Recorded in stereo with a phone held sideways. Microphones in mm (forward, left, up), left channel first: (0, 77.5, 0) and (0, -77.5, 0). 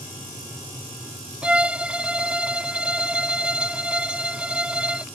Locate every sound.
1.4 s a violin: 5° right (ahead or behind)